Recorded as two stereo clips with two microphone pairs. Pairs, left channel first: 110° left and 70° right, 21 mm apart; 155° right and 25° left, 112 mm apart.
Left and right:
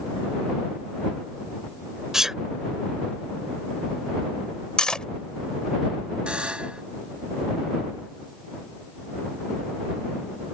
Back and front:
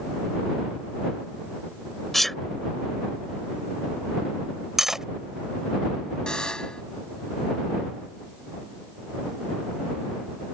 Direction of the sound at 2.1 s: 60° right.